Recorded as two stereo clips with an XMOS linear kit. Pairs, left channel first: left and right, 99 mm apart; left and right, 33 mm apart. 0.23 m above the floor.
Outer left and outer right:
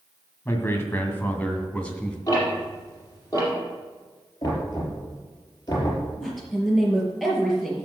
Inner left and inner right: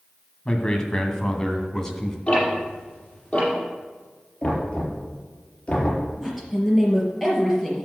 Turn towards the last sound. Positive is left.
turn(degrees=0)  # may be behind; listen again after turning